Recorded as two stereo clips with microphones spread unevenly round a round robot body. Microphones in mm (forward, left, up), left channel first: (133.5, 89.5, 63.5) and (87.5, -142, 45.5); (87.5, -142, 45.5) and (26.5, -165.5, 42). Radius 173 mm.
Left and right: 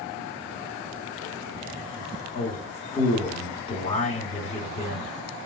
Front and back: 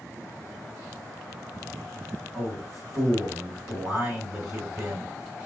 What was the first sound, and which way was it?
A man speaking, 135° left.